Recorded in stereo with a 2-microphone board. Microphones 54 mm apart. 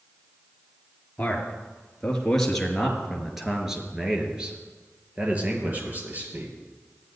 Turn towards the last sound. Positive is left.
turn(degrees=-40)  # may be behind; listen again after turning